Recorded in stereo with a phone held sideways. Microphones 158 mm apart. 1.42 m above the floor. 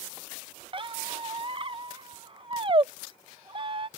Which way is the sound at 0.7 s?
35° right (ahead or behind).